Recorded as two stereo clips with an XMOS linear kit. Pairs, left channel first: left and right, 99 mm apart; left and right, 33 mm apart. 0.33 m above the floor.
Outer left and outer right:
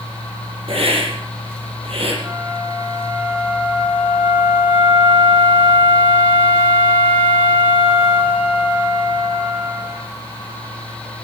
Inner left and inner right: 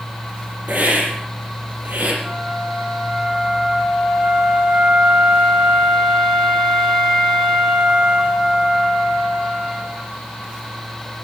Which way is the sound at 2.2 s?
20° right (ahead or behind).